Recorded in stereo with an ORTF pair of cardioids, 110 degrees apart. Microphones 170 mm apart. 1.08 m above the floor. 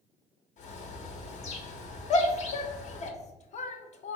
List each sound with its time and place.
0.6 s a bird: 50° left, 0.7 m
2.1 s a shout: 45° left, 0.7 m